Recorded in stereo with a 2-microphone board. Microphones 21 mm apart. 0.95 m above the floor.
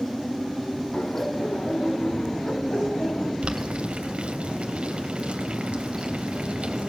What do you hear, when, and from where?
0.9 s laughter: 80° left, 6 m
3.4 s boiling: 60° right (ahead or behind), 3 m